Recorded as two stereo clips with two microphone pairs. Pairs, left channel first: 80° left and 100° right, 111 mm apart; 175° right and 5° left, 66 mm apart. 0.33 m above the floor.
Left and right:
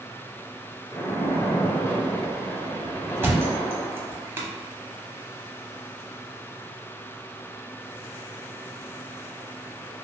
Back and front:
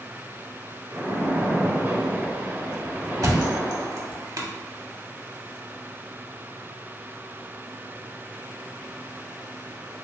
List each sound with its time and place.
0.9 s a splash: 35° left, 0.6 m
3.2 s a thud: 30° right, 0.7 m